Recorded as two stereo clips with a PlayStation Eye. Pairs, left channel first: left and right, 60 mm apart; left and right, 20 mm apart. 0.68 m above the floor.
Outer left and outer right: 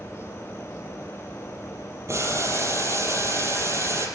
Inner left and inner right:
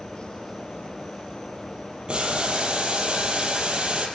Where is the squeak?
No squeak in this recording.